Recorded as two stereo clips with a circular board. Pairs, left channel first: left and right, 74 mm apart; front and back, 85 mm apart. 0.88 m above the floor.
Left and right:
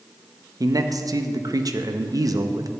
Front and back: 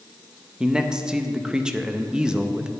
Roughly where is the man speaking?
Right.